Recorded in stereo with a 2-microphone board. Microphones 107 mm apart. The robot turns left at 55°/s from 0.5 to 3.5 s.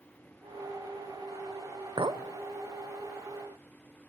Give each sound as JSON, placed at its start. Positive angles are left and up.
{"t": 2.0, "sound": "a clink", "side_deg": -50, "distance_m": 0.8}